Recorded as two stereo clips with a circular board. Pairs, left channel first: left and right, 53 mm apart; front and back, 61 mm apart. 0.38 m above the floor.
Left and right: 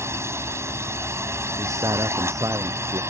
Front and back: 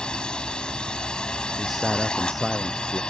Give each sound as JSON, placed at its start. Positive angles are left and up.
{"t": 0.0, "sound": "a drone", "azimuth_deg": -75}
{"t": 1.6, "sound": "a man speaking", "azimuth_deg": -90}